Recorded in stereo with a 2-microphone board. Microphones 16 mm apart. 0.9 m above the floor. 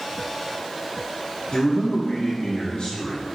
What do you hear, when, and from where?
1.5 s a man speaking: 75° left (ahead or behind), 2.0 m